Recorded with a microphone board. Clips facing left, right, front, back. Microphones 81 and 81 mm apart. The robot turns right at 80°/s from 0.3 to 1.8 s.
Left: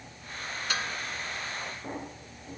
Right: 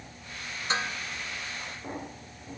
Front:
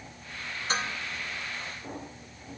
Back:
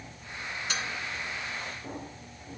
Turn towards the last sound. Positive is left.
turn(degrees=50)